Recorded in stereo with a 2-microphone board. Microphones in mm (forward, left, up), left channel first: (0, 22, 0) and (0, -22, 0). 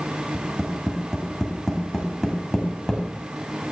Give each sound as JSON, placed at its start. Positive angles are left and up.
{"t": 0.3, "sound": "tapping", "side_deg": 5, "distance_m": 1.7}